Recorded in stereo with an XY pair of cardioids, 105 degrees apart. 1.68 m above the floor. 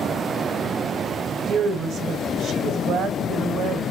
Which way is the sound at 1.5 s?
70° right.